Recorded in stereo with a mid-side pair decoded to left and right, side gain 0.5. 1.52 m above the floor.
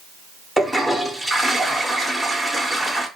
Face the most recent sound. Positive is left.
turn(degrees=0)